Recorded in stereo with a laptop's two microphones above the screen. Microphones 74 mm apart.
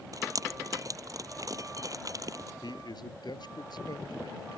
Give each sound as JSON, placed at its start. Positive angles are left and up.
{"t": 0.1, "sound": "dripping", "side_deg": -50}
{"t": 2.6, "sound": "a man speaking", "side_deg": 70}